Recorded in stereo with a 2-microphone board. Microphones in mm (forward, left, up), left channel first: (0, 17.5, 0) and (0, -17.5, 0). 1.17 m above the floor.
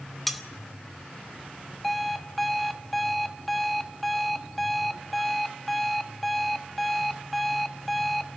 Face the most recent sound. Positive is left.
turn(degrees=0)  # may be behind; listen again after turning